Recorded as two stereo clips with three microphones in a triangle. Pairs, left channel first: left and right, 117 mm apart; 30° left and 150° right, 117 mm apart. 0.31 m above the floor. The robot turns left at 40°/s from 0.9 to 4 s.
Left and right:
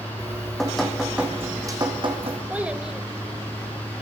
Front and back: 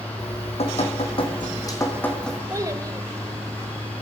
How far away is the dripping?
About 2.5 m.